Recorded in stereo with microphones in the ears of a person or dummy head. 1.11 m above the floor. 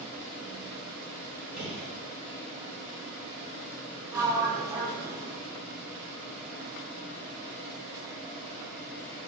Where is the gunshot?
5° right (ahead or behind), 3 m.